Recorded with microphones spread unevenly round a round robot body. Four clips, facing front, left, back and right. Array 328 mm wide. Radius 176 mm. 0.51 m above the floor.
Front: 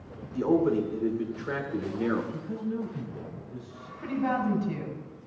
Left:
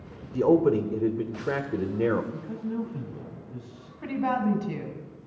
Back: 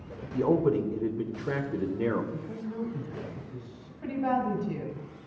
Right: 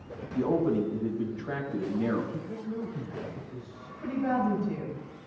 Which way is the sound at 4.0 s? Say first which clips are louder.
Left 1 dB, even; 80° left.